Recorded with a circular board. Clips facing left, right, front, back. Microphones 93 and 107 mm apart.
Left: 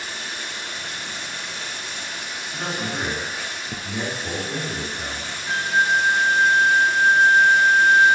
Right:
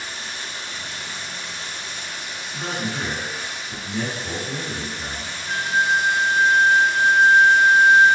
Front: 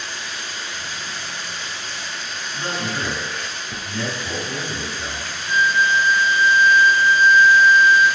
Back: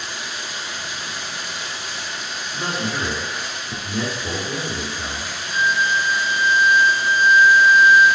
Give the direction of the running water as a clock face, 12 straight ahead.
9 o'clock.